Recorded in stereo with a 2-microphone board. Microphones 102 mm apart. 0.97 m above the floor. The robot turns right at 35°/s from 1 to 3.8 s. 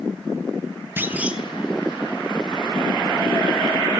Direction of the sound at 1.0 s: 20° right (ahead or behind).